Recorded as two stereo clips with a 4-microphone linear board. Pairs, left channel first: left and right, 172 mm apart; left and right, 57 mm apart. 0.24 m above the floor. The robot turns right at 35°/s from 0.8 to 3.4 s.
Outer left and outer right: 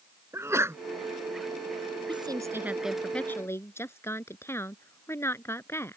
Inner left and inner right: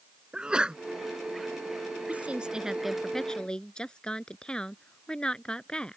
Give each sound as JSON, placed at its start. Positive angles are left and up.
{"t": 0.3, "sound": "a sneeze", "side_deg": -15}
{"t": 2.1, "sound": "a woman speaking", "azimuth_deg": -30}